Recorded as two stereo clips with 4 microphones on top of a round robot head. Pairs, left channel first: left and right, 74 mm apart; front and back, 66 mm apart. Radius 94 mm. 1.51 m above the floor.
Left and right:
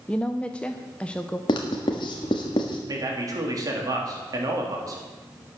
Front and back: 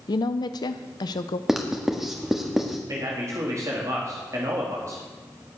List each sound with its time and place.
0.1 s a woman speaking: 10° left, 0.7 m
1.5 s writing: 95° left, 1.4 m
2.9 s a man speaking: 130° right, 3.5 m